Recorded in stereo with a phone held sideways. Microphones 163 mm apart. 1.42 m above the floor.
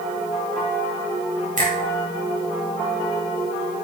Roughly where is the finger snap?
Right.